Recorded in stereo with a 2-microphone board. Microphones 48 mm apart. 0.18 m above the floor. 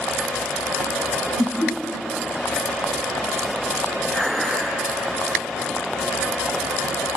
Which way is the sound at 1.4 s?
35° left (ahead or behind).